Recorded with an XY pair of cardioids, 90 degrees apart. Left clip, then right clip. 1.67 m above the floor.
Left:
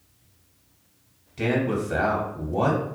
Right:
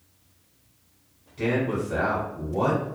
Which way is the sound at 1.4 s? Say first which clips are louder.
Left 1 dB; 45° left.